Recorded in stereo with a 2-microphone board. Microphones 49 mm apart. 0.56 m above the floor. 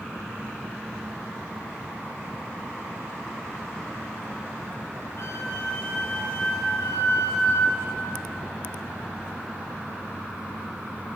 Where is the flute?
75° left (ahead or behind), 6 m.